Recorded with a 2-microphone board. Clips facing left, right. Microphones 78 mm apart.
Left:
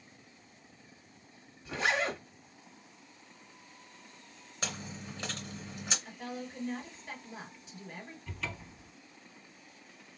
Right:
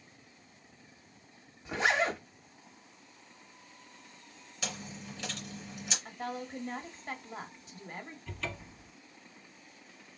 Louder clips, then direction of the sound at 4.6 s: Left 1 dB; 40° left (ahead or behind).